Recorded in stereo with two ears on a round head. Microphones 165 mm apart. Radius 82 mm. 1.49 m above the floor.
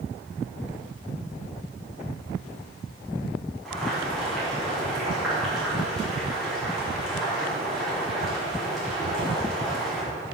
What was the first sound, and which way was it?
Boiling, centre (ahead or behind).